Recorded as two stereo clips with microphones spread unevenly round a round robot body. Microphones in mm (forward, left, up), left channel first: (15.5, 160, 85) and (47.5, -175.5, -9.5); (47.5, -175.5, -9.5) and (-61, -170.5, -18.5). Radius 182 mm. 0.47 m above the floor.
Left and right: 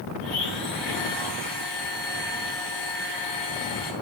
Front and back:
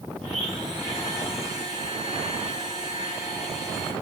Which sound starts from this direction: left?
A blender, at 0.2 s.